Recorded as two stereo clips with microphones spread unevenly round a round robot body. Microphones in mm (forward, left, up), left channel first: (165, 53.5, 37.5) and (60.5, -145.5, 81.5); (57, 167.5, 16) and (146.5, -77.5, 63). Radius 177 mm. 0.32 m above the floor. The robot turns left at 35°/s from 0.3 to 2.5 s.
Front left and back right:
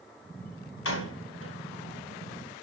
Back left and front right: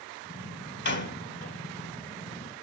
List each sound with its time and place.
0.8 s a door slam: 75° left, 3 m; by 1.6 s 45° left, 3 m